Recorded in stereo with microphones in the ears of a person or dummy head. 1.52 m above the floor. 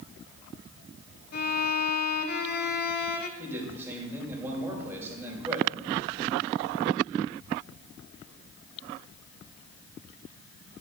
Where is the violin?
50° left (ahead or behind), 0.8 m.